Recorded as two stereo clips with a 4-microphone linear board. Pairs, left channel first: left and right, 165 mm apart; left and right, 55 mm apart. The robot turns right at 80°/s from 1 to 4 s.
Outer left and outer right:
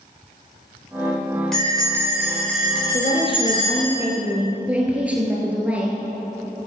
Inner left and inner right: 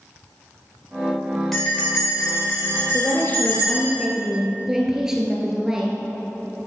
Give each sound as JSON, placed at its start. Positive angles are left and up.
{"t": 1.5, "sound": "a bell", "azimuth_deg": 5, "distance_m": 5.0}
{"t": 2.9, "sound": "a woman speaking", "azimuth_deg": 105, "distance_m": 1.7}